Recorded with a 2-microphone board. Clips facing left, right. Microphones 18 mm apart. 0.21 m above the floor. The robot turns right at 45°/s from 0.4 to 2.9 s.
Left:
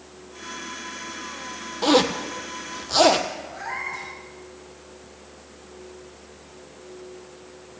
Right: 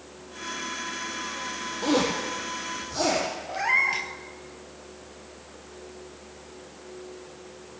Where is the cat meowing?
70° right (ahead or behind), 1.4 m.